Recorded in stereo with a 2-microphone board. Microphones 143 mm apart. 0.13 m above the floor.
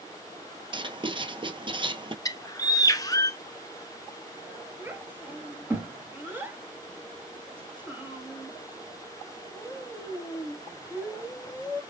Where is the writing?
35° right (ahead or behind), 0.7 m.